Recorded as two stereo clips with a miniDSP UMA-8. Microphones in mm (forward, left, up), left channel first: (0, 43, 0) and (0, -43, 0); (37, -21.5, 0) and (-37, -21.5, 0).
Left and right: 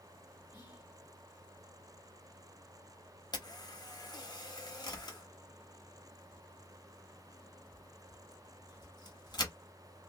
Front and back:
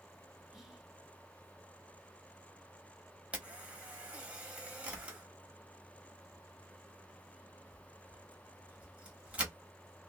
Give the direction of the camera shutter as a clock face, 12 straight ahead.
8 o'clock.